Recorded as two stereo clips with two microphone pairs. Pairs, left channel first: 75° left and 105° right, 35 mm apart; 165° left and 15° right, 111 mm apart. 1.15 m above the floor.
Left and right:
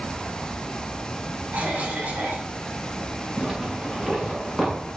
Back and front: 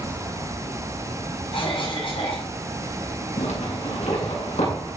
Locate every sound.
1.5 s a cough: 155° right, 6.5 m
3.4 s a zipper: 175° left, 8 m